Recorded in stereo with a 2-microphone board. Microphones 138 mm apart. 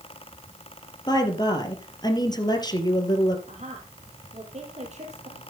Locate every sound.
1.1 s a woman speaking: 30° left (ahead or behind), 2.5 m
3.5 s a woman speaking: 55° right (ahead or behind), 3.5 m